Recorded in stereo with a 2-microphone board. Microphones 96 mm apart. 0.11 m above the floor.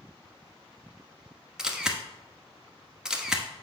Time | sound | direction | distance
1.6 | a camera shutter | 5° right (ahead or behind) | 1.0 m